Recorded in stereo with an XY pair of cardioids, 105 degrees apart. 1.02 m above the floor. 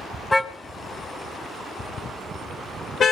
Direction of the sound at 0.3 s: 20° left.